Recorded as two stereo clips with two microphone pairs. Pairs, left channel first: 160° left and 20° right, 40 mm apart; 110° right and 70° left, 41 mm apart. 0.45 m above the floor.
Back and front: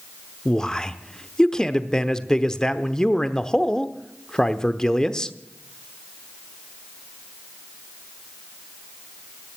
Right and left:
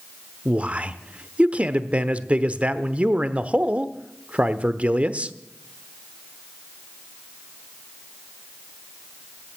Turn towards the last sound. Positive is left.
turn(degrees=95)